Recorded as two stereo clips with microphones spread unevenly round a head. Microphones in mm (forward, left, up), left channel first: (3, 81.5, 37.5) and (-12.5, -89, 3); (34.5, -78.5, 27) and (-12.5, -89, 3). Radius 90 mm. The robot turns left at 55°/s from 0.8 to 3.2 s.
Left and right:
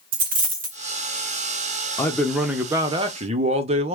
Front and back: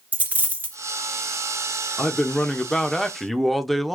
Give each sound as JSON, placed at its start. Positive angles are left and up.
{"t": 0.1, "sound": "a dropped coin", "azimuth_deg": -90, "distance_m": 1.0}
{"t": 2.0, "sound": "a man speaking", "azimuth_deg": 30, "distance_m": 0.6}